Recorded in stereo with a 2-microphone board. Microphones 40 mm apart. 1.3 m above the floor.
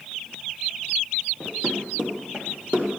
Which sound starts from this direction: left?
Running footsteps, at 1.4 s.